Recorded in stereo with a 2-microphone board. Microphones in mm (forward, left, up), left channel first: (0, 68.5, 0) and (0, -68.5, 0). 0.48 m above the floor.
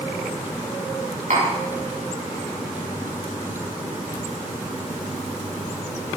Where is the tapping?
75° right (ahead or behind), 4 m.